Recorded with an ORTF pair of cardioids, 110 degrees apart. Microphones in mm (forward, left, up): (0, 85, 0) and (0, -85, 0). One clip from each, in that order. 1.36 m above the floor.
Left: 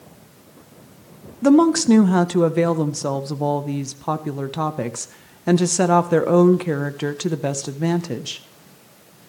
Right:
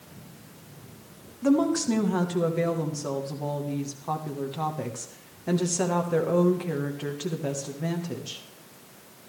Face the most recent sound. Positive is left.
turn(degrees=50)